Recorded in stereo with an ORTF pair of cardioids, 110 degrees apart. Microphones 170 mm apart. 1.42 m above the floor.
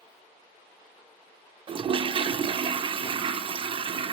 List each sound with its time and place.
1.7 s a toilet flushing: 30° right, 0.6 m